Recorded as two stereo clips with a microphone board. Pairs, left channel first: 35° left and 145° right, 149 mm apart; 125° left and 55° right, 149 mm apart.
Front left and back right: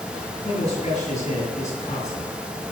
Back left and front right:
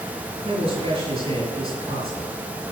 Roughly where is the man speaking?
Ahead.